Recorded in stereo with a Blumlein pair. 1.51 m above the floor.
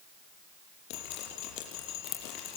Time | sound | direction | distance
0.9 | dripping | 40° left | 7 m